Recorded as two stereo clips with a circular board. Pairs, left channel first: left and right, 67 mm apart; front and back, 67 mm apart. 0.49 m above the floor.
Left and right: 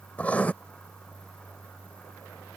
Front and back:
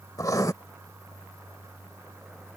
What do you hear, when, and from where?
0.2 s writing: 25° left